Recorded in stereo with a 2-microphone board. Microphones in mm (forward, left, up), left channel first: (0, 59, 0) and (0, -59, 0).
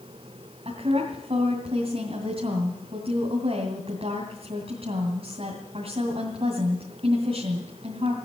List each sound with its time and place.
0.7 s a woman speaking: 55° right (ahead or behind), 2.5 m